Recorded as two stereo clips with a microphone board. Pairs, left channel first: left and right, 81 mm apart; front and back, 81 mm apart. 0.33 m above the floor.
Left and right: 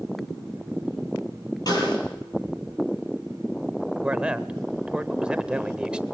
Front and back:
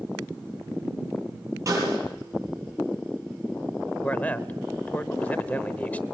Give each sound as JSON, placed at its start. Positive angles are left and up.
{"t": 1.7, "sound": "a snare drum", "azimuth_deg": 130, "distance_m": 7.5}
{"t": 4.0, "sound": "a man speaking", "azimuth_deg": -35, "distance_m": 0.9}